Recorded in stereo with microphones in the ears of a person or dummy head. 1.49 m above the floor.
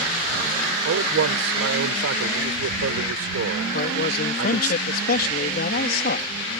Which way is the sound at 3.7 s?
55° left (ahead or behind).